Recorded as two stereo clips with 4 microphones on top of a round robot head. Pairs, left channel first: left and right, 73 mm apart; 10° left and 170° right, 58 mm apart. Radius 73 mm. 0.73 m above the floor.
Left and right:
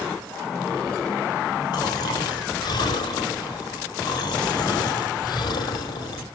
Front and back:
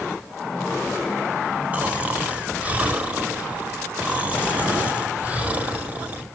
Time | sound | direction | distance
1.7 | snoring | 125° left | 1.6 m